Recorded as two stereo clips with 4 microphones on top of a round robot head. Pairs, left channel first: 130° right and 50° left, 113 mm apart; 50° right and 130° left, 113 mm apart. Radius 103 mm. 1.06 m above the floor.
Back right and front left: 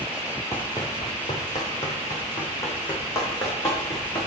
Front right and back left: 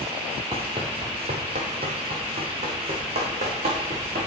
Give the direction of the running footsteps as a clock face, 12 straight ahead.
6 o'clock.